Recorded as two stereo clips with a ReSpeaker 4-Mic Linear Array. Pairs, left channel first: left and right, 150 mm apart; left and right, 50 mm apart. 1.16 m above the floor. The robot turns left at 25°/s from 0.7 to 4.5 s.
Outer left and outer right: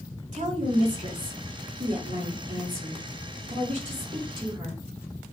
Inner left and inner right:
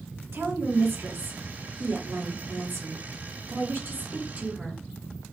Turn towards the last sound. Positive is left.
turn(degrees=-150)